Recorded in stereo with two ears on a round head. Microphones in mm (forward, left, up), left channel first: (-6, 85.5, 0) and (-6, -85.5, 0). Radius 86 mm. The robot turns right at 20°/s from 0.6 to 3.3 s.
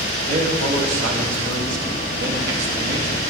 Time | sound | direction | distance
0.3 | a man speaking | 90° right | 1.9 m